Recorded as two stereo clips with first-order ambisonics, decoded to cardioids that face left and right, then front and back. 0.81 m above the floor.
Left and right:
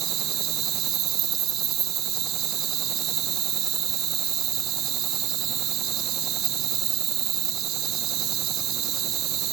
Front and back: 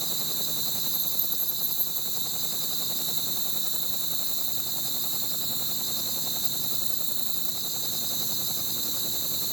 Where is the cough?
No cough in this recording.